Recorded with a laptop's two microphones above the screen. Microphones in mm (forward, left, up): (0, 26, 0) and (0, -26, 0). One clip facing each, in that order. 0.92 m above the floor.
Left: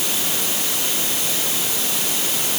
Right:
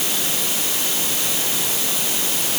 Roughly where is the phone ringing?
I don't hear a phone ringing.